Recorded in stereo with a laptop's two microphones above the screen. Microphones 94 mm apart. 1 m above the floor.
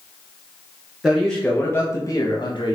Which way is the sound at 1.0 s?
Centre (ahead or behind).